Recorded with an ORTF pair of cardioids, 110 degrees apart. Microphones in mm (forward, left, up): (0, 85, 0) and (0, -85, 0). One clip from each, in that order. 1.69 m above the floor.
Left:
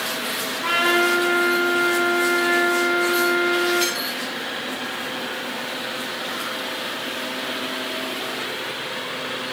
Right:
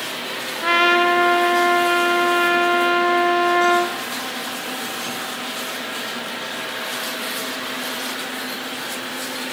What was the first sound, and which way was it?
A trumpet, 40° right.